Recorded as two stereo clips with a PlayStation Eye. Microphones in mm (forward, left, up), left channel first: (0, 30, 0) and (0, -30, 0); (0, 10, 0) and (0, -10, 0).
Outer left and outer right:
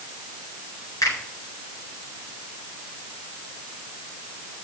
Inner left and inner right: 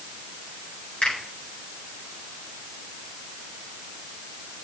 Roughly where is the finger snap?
Left.